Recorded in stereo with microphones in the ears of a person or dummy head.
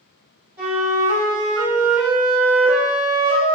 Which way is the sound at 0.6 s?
20° right (ahead or behind).